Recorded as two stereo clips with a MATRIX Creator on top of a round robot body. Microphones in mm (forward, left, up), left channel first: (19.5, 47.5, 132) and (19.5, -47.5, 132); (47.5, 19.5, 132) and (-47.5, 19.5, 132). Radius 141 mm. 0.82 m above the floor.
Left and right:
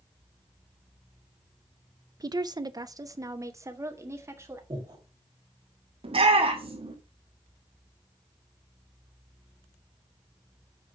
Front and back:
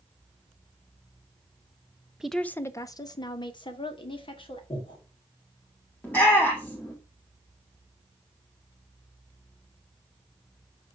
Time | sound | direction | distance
2.2 | a woman speaking | 100° right | 0.8 m
4.7 | breathing | 40° right | 4.5 m
6.0 | a shout | 70° right | 3 m